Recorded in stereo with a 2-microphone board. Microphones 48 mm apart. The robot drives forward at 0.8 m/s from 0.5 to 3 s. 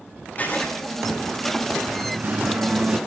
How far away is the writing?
About 6 m.